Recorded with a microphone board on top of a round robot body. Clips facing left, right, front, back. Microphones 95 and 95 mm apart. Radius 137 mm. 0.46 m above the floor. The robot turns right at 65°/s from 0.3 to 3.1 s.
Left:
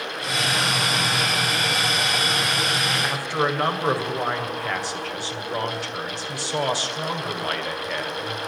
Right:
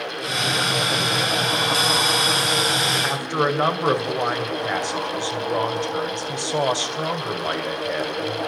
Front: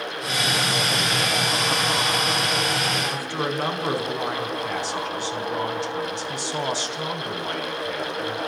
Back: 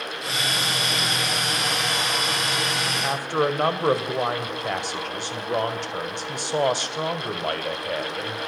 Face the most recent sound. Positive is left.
turn(degrees=-155)